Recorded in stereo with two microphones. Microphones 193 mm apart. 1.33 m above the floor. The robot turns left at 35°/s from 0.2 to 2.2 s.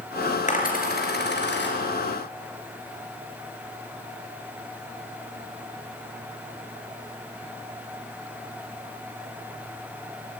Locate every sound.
0.5 s a dropped coin: 40° left (ahead or behind), 4 m; by 1.8 s 75° left (ahead or behind), 4 m